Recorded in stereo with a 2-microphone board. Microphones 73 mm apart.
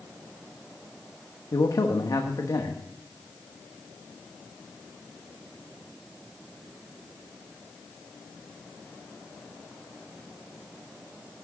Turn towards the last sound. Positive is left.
turn(degrees=55)  # may be behind; listen again after turning